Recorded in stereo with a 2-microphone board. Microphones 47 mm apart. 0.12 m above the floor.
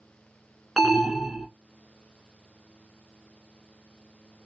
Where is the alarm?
Centre (ahead or behind), 1.1 m.